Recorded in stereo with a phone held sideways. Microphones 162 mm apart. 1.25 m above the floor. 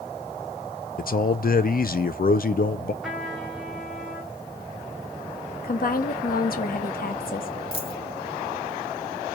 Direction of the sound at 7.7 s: 35° left (ahead or behind).